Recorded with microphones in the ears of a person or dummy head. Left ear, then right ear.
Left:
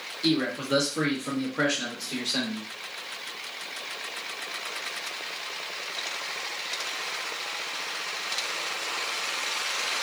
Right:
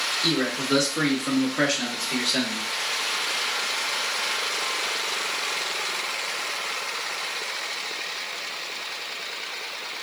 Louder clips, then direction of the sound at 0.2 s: Right 3 dB; centre (ahead or behind).